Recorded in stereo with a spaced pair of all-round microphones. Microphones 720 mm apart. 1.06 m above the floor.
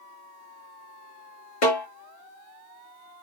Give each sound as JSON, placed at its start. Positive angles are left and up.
{"t": 1.6, "sound": "a snare drum", "side_deg": 75, "distance_m": 1.4}